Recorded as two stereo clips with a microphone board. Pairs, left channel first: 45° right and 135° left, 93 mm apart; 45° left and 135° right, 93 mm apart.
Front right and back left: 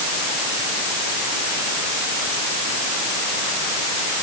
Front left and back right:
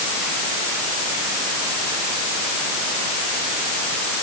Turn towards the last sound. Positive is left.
No sound to turn to.